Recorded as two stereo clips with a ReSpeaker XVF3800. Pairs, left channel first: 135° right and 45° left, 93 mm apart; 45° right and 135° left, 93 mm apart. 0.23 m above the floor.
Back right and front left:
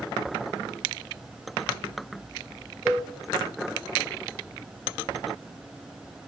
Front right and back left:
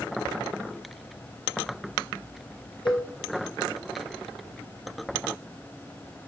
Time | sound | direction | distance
2.9 | a cowbell | 20° right | 1.6 m